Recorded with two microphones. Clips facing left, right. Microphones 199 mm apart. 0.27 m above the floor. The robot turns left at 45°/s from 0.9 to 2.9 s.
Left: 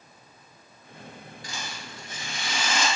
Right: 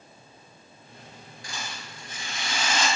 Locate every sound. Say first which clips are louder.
1.4 s a rattle: even; 65° right, 1.3 m; by 2.9 s 130° right, 1.3 m